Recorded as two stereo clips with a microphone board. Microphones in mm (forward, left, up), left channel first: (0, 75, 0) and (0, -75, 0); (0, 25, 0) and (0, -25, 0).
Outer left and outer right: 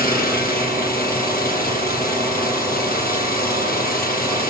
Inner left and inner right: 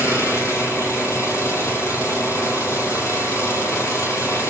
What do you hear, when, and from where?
0.0 s an engine running: 75° left (ahead or behind), 4.5 m